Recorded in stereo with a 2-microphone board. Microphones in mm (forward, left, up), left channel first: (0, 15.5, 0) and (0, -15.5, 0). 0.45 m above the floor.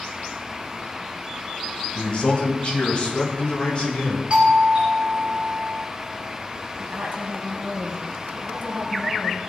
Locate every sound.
1.9 s a man speaking: 45° left (ahead or behind), 2 m; by 4.2 s 35° left (ahead or behind), 4 m
4.3 s a doorbell: 35° right (ahead or behind), 5 m
6.8 s a woman speaking: 65° right (ahead or behind), 3 m